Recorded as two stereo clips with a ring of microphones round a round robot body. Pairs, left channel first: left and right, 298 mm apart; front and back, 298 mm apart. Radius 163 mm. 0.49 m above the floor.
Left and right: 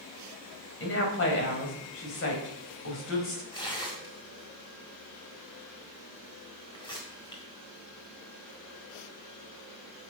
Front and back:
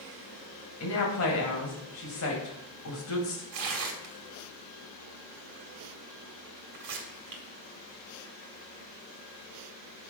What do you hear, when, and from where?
0.8 s a woman speaking: 45° left, 3 m
3.5 s tearing paper: 165° left, 1.8 m